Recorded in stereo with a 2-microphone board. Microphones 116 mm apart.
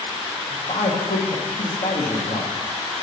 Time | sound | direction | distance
0.5 | a man speaking | 85° left | 1.2 m